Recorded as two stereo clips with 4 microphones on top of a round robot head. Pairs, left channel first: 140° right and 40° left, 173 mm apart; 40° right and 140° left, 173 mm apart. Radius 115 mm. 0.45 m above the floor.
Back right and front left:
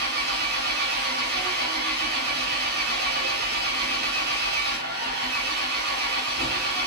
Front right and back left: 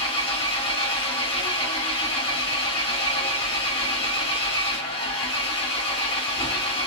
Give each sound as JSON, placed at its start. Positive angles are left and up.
{"t": 0.0, "sound": "an engine running", "azimuth_deg": 15, "distance_m": 1.9}